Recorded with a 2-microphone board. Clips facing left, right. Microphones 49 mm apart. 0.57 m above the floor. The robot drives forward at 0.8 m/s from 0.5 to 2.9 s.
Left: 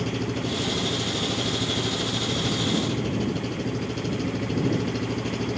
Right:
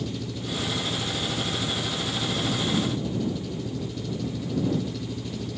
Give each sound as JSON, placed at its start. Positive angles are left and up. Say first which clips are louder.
{"t": 0.0, "sound": "an engine running", "louder": "left 5 dB", "side_deg": 55}